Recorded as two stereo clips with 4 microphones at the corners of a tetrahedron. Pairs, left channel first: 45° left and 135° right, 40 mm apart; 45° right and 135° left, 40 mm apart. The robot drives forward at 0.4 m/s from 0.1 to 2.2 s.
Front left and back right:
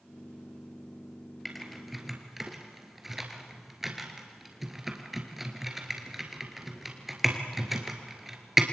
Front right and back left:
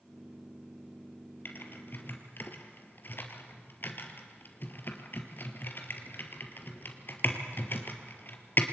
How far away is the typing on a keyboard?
About 2.0 m.